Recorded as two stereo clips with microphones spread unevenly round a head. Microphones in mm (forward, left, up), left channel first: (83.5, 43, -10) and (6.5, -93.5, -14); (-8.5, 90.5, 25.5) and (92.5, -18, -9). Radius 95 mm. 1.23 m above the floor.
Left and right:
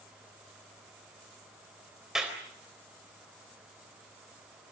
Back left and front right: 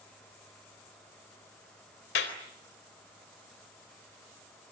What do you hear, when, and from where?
2.1 s a clap: 155° left, 3.5 m